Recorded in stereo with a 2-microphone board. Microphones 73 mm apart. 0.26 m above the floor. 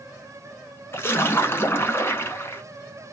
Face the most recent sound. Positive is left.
turn(degrees=35)  # may be behind; listen again after turning